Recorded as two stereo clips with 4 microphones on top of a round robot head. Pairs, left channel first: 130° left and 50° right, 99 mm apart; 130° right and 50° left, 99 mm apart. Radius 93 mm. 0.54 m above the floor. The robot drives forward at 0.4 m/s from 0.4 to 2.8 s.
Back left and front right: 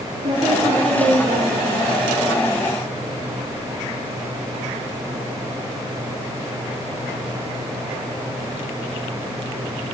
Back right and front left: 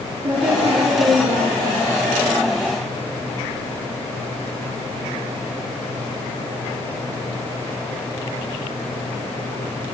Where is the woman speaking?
20° right, 9 m.